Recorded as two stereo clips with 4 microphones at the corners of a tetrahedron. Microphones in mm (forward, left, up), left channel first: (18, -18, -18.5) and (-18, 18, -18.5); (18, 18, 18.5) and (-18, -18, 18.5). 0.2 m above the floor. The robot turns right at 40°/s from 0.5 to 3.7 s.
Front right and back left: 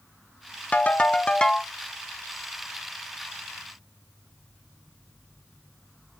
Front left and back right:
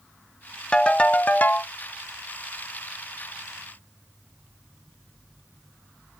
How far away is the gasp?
I don't hear a gasp.